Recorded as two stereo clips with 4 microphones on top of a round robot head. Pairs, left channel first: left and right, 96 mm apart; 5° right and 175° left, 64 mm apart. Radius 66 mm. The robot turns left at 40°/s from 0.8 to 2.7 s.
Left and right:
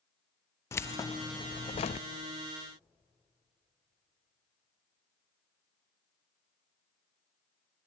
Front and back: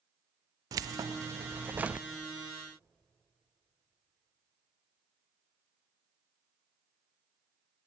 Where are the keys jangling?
150° left, 0.6 m; by 2.0 s 100° left, 0.6 m.